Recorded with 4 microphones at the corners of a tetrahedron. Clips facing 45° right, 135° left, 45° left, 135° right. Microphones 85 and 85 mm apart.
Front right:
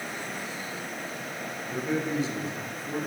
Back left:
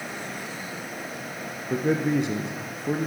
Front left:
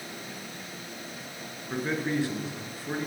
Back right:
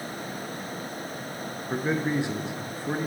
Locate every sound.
1.7 s a man speaking: 155° left, 2.5 m